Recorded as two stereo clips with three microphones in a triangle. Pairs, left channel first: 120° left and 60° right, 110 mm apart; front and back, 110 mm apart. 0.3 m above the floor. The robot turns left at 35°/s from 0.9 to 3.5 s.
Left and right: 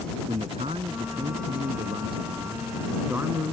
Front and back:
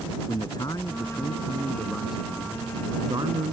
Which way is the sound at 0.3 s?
50° right.